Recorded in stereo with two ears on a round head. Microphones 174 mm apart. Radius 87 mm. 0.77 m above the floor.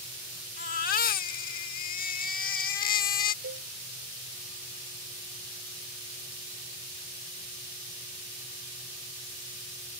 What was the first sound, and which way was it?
A baby crying, 45° left (ahead or behind).